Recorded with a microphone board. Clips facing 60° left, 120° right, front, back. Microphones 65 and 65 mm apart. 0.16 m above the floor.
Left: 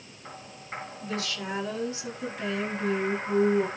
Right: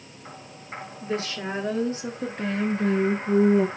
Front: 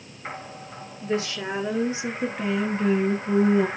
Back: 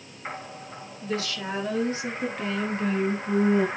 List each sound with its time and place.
1.0 s a woman speaking: 60° right, 3 m; by 3.7 s 95° right, 3.5 m